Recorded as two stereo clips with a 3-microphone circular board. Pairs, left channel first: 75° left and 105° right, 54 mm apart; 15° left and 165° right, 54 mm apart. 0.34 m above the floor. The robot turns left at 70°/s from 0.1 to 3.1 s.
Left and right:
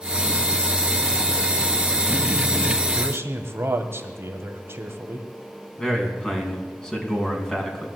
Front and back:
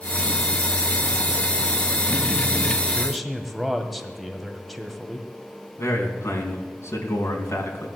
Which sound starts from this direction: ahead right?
A man speaking, at 3.0 s.